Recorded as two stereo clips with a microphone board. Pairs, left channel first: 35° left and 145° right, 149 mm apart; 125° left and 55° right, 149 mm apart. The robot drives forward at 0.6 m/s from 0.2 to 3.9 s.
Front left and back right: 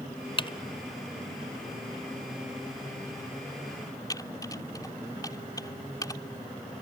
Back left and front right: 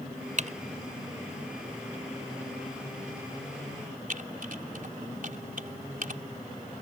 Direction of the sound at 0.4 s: 20° right.